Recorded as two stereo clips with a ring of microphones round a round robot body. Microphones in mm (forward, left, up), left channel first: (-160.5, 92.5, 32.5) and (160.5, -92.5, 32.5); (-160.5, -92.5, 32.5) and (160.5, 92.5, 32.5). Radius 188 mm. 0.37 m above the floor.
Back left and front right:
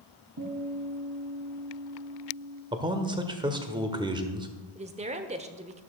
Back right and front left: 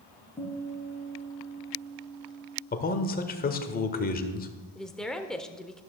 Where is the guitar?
75° right, 3 m.